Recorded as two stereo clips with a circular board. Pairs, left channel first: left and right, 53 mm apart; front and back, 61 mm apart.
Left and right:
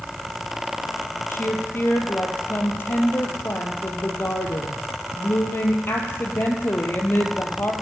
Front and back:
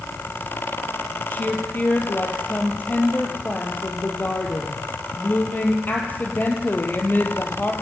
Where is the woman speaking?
55° left, 3 m.